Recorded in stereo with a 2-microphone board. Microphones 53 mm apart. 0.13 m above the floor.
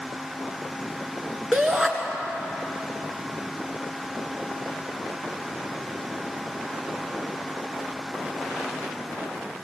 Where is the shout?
Centre (ahead or behind), 1.4 m.